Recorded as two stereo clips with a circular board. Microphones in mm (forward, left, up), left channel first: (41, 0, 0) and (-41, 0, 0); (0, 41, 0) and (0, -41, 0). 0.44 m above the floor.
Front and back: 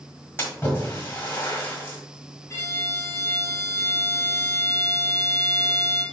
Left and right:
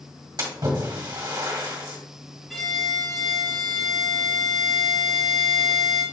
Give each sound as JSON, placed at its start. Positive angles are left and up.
{"t": 0.4, "sound": "a splash", "azimuth_deg": -60, "distance_m": 1.7}
{"t": 2.5, "sound": "a violin", "azimuth_deg": 0, "distance_m": 1.4}